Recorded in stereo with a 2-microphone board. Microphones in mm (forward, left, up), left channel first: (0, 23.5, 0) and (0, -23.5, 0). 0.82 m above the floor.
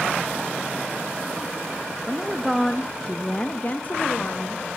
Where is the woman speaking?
20° right (ahead or behind), 0.7 m; by 4.6 s 40° left (ahead or behind), 1.0 m.